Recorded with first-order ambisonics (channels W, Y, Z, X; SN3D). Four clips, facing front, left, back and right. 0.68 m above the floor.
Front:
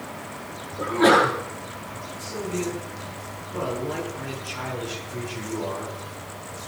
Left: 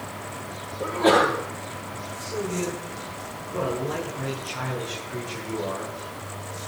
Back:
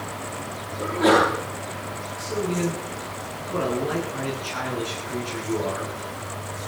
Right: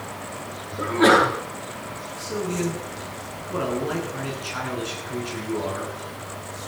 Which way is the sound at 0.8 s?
70° right.